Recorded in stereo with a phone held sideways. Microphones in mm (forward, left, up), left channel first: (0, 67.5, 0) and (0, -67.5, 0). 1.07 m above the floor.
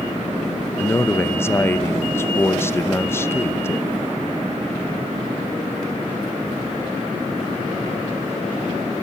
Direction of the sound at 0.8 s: 20° left (ahead or behind).